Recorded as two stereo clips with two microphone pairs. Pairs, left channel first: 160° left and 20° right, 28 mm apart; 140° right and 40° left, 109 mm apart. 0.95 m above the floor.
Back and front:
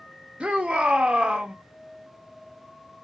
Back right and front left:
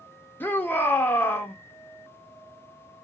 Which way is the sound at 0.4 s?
65° right.